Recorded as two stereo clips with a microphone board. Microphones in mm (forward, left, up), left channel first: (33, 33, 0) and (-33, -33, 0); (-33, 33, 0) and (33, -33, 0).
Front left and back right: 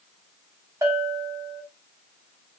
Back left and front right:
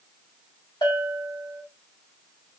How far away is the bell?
About 1.3 m.